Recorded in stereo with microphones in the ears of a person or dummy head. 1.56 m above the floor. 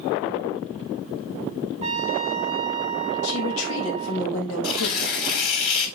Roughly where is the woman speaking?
Left.